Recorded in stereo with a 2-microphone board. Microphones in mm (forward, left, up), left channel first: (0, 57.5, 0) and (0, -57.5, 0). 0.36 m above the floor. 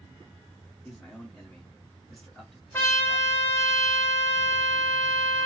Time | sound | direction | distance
0.8 | a man speaking | 5° left (ahead or behind) | 1.7 m
2.7 | a trumpet | 20° left (ahead or behind) | 1.1 m